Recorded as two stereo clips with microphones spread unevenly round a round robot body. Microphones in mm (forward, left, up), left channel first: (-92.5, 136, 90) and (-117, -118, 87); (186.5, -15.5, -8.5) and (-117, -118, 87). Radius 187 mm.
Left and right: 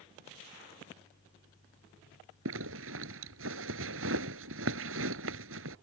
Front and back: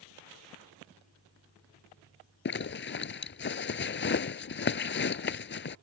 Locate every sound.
2.5 s a zipper: 45° right